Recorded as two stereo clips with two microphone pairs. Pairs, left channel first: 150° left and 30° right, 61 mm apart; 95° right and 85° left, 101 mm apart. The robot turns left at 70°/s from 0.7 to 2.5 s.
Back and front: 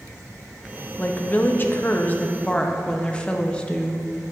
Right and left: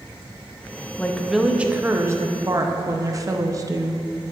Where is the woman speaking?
160° right, 0.6 m; by 4.0 s 90° left, 0.6 m.